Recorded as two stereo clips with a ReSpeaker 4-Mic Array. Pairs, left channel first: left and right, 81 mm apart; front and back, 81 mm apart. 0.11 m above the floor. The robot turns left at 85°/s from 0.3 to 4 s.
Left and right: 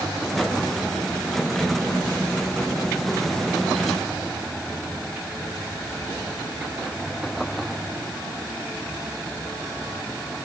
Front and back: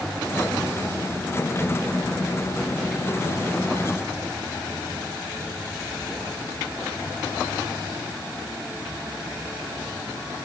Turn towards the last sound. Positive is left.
No sound to turn to.